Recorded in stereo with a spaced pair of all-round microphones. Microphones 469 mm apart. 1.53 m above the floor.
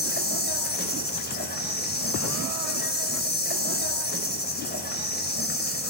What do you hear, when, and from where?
0.0 s an insect: 20° left (ahead or behind), 5 m